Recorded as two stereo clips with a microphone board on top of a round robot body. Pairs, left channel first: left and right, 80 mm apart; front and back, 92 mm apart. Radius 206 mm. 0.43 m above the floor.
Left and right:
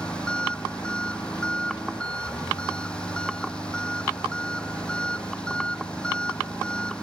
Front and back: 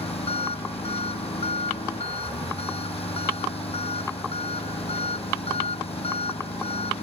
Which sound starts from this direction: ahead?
An engine running, at 0.0 s.